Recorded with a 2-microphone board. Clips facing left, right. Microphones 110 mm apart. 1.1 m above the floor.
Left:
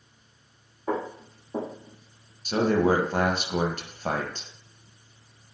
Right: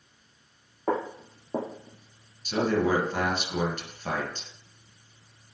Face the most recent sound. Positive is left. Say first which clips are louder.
# left 3 dB
turn(degrees=45)  # may be behind; listen again after turning